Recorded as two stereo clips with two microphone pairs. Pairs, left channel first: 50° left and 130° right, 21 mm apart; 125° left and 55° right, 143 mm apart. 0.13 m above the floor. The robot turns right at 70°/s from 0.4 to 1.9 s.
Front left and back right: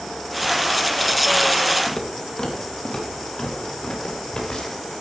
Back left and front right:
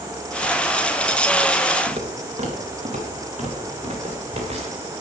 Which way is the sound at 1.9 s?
15° right.